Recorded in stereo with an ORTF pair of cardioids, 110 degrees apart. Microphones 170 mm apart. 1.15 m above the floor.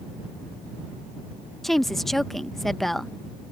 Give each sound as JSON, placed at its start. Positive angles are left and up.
{"t": 1.6, "sound": "a woman speaking", "azimuth_deg": 0}